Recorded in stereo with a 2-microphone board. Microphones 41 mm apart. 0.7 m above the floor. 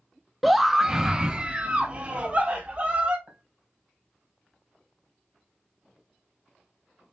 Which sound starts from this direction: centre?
A scream, at 0.4 s.